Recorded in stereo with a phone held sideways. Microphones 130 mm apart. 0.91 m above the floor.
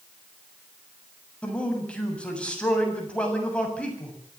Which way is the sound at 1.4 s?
10° left (ahead or behind).